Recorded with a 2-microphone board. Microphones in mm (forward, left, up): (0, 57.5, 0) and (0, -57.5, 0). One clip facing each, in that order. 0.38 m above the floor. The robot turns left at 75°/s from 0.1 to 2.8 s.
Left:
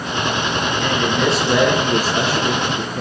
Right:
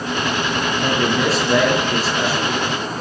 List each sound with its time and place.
0.8 s a man speaking: 140° right, 5.5 m; by 3.0 s 70° left, 5.5 m